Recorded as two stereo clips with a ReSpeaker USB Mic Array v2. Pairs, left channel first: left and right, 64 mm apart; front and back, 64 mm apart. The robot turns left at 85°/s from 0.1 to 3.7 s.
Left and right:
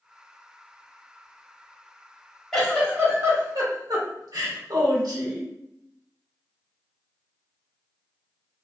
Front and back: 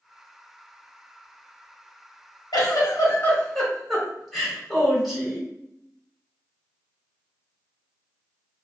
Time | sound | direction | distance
2.5 | a giggle | 10° left | 1.1 m